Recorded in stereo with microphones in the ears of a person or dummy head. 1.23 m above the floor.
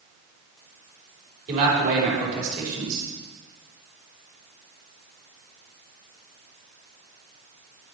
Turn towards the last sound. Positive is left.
turn(degrees=-45)  # may be behind; listen again after turning